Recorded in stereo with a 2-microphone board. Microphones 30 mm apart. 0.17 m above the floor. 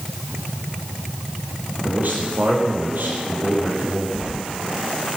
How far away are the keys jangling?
About 2 m.